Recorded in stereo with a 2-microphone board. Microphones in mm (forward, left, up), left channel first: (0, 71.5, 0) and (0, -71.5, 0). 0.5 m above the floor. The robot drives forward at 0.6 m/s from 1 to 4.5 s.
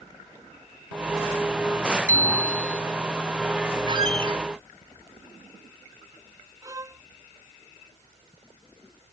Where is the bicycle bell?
75° left (ahead or behind); by 2.8 s 70° left (ahead or behind).